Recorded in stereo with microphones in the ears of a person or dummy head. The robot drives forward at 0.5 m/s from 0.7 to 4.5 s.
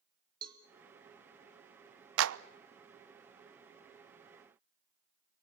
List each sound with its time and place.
0.4 s a cowbell: 30° right (ahead or behind), 3 m
2.2 s a clap: 80° right, 0.8 m; by 2.4 s 85° right, 0.7 m